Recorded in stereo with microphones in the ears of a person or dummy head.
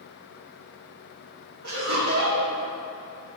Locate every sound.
1.6 s laughter: 70° right (ahead or behind), 1.9 m